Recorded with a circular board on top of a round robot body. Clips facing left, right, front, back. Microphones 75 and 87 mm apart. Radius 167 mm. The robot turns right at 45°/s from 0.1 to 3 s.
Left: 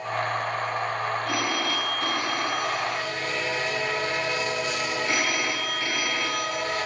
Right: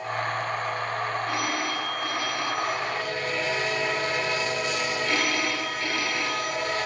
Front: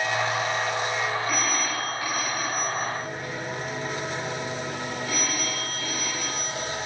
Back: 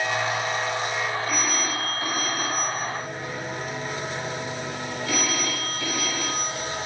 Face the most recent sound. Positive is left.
turn(degrees=165)